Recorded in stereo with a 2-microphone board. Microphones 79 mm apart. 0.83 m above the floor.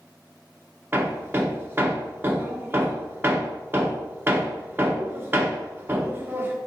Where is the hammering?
30° right (ahead or behind), 1.2 m.